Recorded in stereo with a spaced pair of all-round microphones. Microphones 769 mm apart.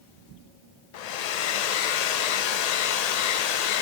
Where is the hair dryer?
60° left (ahead or behind), 0.5 m.